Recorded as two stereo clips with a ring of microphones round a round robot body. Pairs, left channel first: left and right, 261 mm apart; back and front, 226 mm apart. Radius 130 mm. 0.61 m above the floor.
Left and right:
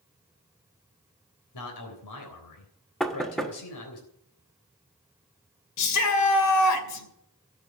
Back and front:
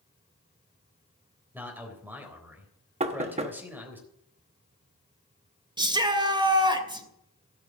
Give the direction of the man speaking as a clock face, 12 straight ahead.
9 o'clock.